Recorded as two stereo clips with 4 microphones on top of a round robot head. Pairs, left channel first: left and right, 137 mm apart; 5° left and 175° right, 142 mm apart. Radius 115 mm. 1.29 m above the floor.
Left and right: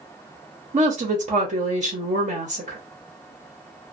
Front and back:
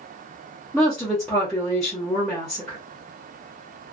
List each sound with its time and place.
0.7 s a woman speaking: 80° right, 0.8 m